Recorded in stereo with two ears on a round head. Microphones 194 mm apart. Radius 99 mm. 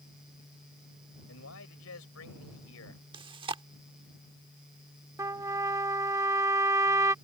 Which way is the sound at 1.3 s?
65° left (ahead or behind).